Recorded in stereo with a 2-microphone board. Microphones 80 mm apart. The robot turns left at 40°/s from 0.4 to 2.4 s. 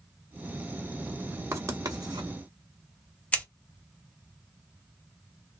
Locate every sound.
1.5 s writing: 35° right (ahead or behind), 0.9 m; by 2.3 s 65° right (ahead or behind), 0.9 m
3.3 s scissors: 15° left (ahead or behind), 1.1 m